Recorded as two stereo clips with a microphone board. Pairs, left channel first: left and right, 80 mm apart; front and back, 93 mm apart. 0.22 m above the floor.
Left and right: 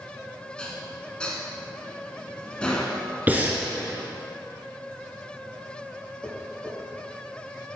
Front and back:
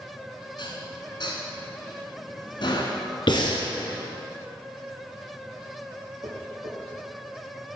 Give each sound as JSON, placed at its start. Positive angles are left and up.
{"t": 0.6, "sound": "dishes clattering", "azimuth_deg": 15, "distance_m": 1.3}
{"t": 3.3, "sound": "breathing", "azimuth_deg": -20, "distance_m": 1.5}
{"t": 6.2, "sound": "tapping", "azimuth_deg": -175, "distance_m": 3.5}